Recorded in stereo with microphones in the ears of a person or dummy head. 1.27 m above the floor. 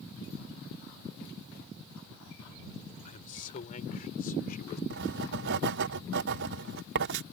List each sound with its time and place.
3.0 s a man speaking: 40° left (ahead or behind); by 4.8 s 45° left (ahead or behind)
4.9 s writing: 55° right (ahead or behind)